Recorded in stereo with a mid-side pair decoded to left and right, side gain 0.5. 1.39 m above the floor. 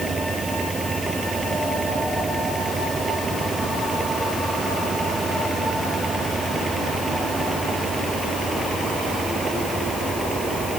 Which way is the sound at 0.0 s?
25° right.